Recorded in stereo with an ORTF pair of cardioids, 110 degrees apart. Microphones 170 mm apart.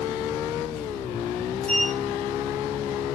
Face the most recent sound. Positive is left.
turn(degrees=5)